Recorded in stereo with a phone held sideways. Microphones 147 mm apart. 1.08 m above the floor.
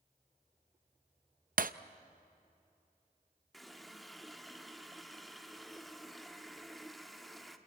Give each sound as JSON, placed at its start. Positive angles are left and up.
{"t": 1.6, "sound": "breaking glass", "side_deg": -65, "distance_m": 0.6}
{"t": 3.5, "sound": "a running tap", "side_deg": 0, "distance_m": 1.3}